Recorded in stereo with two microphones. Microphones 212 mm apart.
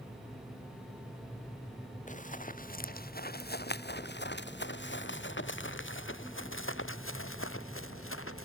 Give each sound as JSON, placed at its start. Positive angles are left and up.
{"t": 2.1, "sound": "running footsteps", "side_deg": 35}